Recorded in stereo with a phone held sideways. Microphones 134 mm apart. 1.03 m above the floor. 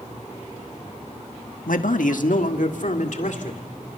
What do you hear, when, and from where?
1.7 s a man speaking: 80° left, 1.3 m; by 3.6 s 65° left (ahead or behind), 3 m